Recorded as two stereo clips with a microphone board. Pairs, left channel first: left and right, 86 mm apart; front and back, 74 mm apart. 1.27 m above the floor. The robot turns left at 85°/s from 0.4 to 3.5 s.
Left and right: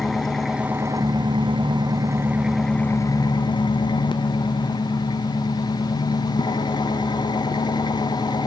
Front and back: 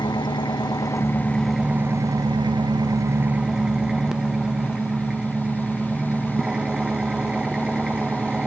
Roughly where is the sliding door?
I don't hear a sliding door.